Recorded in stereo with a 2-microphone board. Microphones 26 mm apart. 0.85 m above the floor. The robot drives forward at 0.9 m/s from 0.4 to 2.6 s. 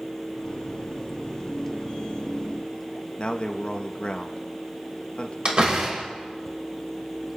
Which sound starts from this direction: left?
A man speaking, at 3.2 s.